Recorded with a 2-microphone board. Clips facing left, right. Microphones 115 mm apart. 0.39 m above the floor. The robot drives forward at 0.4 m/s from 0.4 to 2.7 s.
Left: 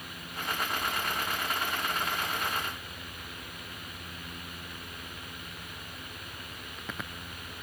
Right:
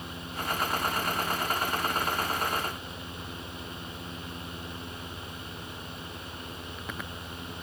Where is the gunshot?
No gunshot in this recording.